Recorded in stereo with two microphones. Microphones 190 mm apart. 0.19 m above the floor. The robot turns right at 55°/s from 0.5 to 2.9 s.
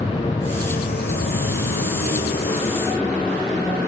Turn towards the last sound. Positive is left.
turn(degrees=160)